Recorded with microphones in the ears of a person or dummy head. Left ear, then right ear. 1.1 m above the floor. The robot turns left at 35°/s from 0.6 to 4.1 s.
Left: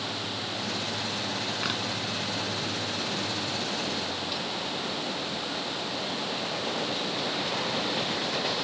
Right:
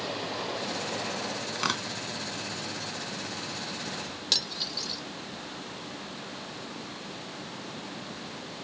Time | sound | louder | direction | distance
1.6 | tearing paper | right 3 dB | 40° right (ahead or behind) | ?
4.3 | cutlery clinking | right 3 dB | 55° right (ahead or behind) | ?